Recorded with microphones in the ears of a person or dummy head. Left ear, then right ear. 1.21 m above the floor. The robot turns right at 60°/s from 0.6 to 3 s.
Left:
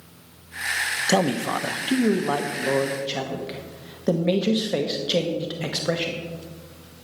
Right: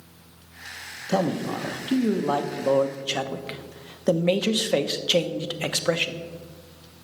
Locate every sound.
1.1 s a man speaking: 100° left, 1.0 m; by 6.2 s 150° right, 1.0 m